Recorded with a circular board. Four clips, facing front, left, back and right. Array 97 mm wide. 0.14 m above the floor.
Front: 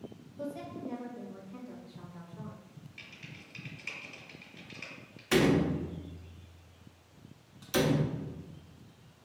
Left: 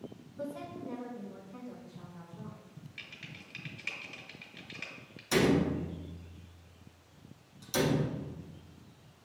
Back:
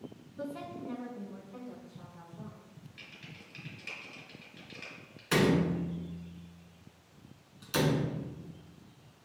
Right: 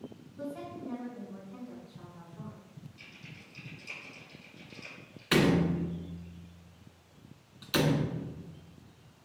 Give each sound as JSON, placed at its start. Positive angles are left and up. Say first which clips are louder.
{"t": 0.4, "sound": "a woman speaking", "louder": "even, front 1 dB", "azimuth_deg": -175, "distance_m": 1.2}
{"t": 3.0, "sound": "typing on a keyboard", "louder": "left 1 dB, even", "azimuth_deg": 95, "distance_m": 1.5}
{"t": 5.3, "sound": "a door slam", "louder": "right 1 dB, front 1 dB", "azimuth_deg": -95, "distance_m": 0.8}